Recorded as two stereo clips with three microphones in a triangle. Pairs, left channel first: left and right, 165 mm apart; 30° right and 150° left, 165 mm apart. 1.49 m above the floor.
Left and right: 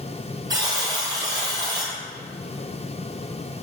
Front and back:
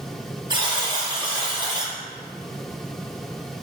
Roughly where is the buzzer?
Behind right.